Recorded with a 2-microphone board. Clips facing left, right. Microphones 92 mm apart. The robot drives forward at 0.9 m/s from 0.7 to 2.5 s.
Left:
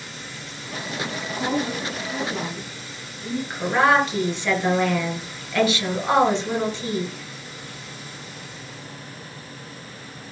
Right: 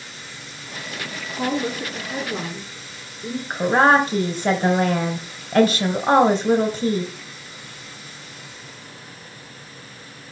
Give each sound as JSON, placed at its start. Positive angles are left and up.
{"t": 1.4, "sound": "a woman speaking", "side_deg": -40, "distance_m": 3.0}
{"t": 3.5, "sound": "a woman speaking", "side_deg": -45, "distance_m": 3.5}